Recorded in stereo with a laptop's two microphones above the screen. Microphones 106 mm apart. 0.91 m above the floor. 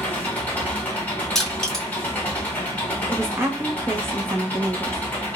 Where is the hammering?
No hammering in this recording.